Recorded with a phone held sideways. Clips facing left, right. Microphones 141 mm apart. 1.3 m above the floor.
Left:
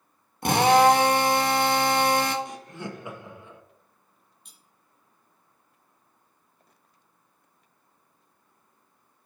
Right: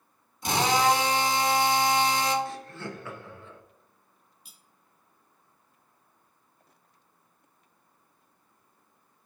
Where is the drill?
60° left (ahead or behind), 1.2 m.